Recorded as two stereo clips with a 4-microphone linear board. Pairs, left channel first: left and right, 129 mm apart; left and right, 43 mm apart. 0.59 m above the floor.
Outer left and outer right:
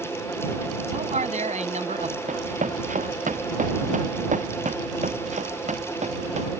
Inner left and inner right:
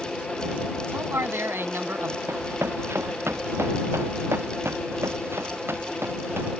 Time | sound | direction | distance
0.9 | a man speaking | 65° right (ahead or behind) | ?
2.3 | running footsteps | 75° right (ahead or behind) | ?